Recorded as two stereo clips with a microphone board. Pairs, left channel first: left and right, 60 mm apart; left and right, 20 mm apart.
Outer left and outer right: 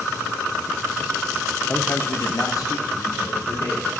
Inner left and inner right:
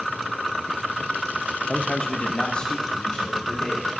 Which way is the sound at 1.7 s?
20° left (ahead or behind).